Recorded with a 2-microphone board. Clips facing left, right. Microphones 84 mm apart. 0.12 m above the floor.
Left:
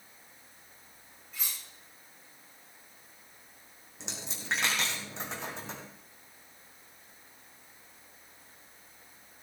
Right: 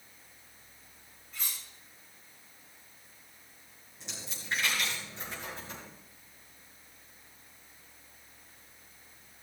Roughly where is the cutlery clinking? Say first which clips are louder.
Even; centre.